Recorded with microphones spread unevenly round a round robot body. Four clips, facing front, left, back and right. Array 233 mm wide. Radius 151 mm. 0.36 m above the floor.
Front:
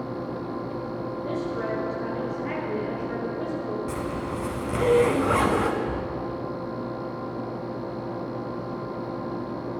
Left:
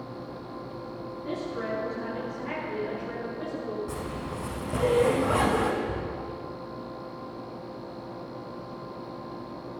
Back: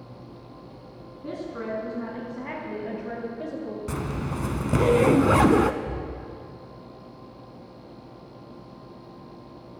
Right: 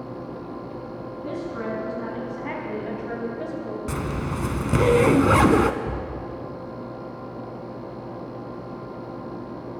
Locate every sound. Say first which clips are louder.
1.2 s a woman speaking: right 2 dB, front 2 dB; 140° right, 5.5 m; by 3.8 s 165° right, 3 m
3.9 s a zipper: right 6 dB, front 2 dB; 130° right, 0.5 m
5.8 s a cupboard door: right 2 dB, front 4 dB; 95° right, 4 m